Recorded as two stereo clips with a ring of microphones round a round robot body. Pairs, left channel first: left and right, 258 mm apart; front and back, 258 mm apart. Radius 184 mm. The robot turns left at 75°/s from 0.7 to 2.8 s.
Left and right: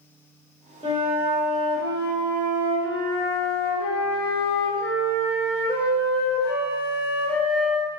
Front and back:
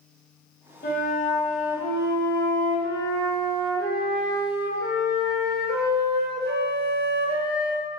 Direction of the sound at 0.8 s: 35° right.